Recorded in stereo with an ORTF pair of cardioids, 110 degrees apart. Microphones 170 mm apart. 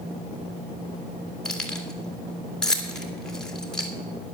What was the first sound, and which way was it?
Keys jangling, 5° left.